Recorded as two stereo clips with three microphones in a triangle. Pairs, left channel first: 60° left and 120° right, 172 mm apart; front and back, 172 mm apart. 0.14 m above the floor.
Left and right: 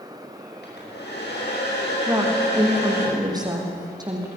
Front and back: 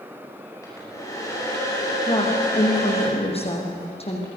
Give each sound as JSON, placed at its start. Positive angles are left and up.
{"t": 0.6, "sound": "a hair dryer", "azimuth_deg": 70, "distance_m": 9.0}
{"t": 2.1, "sound": "a woman speaking", "azimuth_deg": -55, "distance_m": 6.5}